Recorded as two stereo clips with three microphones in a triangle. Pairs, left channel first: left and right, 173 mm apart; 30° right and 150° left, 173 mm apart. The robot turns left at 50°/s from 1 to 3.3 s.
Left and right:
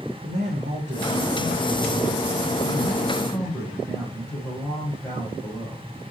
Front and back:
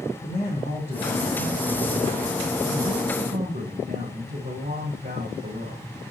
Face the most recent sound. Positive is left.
turn(degrees=170)